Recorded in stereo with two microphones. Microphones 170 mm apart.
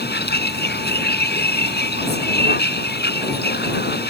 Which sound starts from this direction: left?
A vehicle, at 0.0 s.